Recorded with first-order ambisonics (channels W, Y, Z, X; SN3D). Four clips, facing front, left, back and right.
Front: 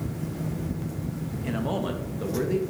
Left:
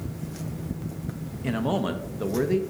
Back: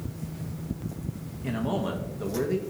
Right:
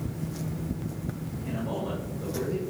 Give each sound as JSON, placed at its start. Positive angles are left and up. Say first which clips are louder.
{"t": 1.4, "sound": "a man speaking", "louder": "left 7 dB, even", "azimuth_deg": 80, "distance_m": 0.5}